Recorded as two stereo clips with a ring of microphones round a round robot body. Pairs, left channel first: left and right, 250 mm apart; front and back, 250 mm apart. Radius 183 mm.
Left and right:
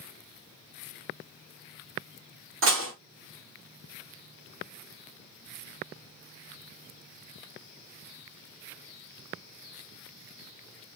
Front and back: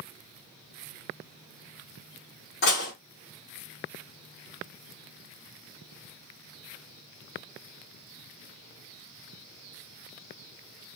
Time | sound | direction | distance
2.6 | dishes clattering | 55° right | 1.0 m